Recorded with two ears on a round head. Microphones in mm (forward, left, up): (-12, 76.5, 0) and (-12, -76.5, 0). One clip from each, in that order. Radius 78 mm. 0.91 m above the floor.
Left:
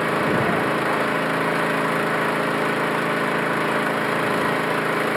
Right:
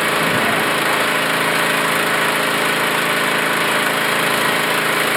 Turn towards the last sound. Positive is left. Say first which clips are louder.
# right 4 dB
turn(degrees=-75)  # may be behind; listen again after turning